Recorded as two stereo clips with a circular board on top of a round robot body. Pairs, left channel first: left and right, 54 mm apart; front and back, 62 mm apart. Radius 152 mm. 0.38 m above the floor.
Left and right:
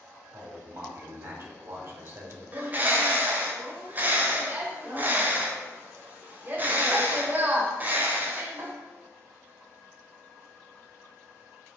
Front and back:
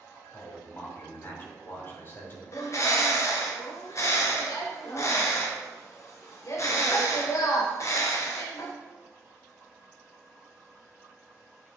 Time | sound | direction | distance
0.3 | a man speaking | 50° right | 3 m
2.5 | a bird | 35° right | 1.3 m